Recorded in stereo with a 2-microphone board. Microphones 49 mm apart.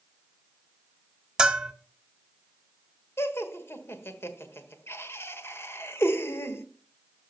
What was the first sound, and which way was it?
A bell, 15° right (ahead or behind).